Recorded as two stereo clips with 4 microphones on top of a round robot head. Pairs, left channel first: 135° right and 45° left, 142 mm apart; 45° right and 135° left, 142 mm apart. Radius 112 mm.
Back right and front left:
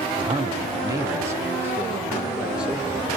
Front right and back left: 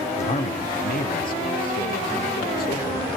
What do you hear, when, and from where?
0.2 s a man speaking: 5° right, 1.3 m; by 3.1 s 40° right, 3 m